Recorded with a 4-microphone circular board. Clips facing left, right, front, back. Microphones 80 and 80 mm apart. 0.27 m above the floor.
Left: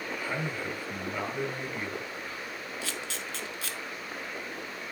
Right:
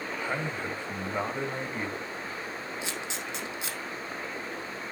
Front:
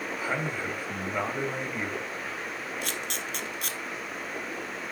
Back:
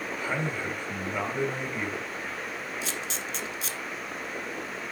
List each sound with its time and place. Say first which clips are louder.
0.2 s a man speaking: right 3 dB, even; 70° right, 1.5 m
2.8 s a camera shutter: right 2 dB, even; 20° right, 1.0 m